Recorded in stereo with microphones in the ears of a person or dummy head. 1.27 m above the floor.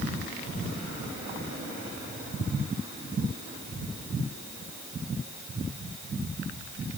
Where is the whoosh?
I don't hear a whoosh.